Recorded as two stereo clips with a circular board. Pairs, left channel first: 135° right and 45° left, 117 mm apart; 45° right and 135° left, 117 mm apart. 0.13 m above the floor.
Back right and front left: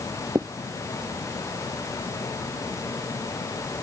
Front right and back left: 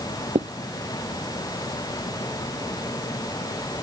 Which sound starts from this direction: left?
Writing, at 0.3 s.